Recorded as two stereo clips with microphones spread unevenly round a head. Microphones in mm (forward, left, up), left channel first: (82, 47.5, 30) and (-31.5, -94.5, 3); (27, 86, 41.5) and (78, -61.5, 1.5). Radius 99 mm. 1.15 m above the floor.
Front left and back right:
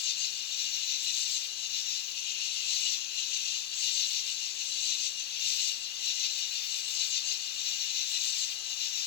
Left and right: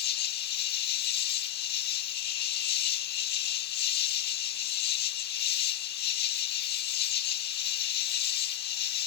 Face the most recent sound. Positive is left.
turn(degrees=95)